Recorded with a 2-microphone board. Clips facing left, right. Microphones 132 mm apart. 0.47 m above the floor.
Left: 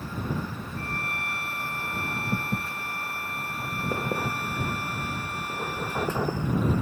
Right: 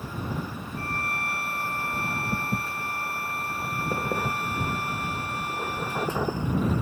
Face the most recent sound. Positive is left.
turn(degrees=-40)  # may be behind; listen again after turning